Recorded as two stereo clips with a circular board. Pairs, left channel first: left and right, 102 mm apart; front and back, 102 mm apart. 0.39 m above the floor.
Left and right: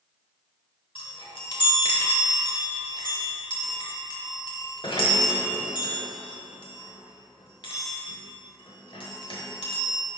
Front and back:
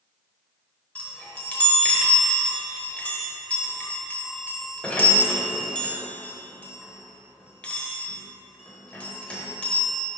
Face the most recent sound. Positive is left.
turn(degrees=75)